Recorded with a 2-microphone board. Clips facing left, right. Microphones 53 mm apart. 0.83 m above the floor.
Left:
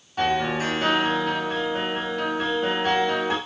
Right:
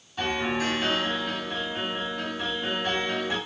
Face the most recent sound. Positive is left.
turn(degrees=45)  # may be behind; listen again after turning